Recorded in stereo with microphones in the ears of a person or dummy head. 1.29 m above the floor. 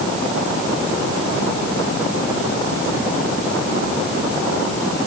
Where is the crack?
No crack in this recording.